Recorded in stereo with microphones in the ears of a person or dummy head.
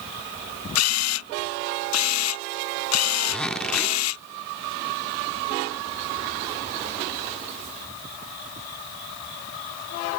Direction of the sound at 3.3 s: 5° left (ahead or behind).